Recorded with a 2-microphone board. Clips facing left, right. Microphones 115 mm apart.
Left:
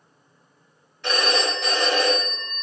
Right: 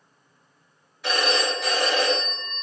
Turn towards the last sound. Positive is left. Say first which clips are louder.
# left 1 dB
turn(degrees=-5)  # may be behind; listen again after turning